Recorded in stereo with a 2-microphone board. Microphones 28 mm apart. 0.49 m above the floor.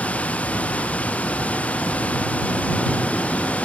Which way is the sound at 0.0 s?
55° left (ahead or behind).